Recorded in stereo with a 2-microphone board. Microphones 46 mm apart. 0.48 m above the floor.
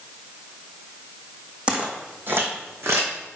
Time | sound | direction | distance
1.7 | footsteps | 20° right (ahead or behind) | 1.5 m